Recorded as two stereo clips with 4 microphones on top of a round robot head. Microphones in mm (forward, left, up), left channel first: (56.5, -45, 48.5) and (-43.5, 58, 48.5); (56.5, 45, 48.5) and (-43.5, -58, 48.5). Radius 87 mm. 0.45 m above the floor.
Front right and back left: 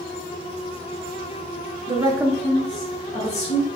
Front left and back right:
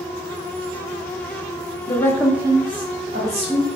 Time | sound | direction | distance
1.9 | a woman speaking | 95° left | 0.9 m